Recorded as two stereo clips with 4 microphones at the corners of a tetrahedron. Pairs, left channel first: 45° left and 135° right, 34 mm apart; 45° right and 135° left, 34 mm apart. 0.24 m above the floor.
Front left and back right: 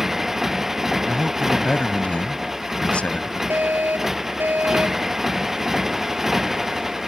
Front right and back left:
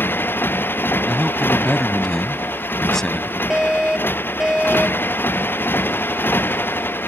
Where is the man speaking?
25° left.